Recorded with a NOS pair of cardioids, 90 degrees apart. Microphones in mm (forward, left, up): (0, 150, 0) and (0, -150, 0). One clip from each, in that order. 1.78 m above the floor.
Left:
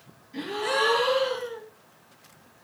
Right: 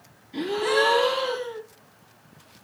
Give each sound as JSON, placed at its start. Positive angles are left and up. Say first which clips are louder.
{"t": 0.3, "sound": "a gasp", "louder": "right 4 dB", "azimuth_deg": -50, "distance_m": 5.0}